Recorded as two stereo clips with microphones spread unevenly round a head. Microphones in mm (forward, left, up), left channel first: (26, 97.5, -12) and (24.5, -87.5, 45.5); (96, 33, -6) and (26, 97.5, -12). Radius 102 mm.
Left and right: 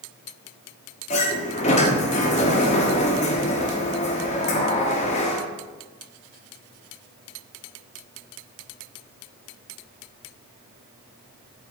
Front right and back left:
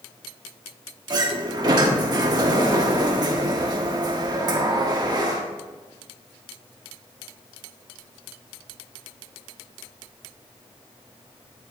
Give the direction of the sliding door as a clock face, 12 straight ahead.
7 o'clock.